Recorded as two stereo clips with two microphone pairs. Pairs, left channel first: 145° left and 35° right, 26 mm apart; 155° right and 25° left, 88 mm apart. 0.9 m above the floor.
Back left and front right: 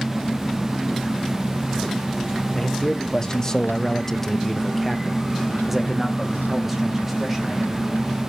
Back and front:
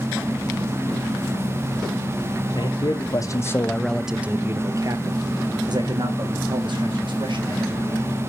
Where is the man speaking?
150° right, 1.0 m; by 8.2 s 40° left, 2.5 m.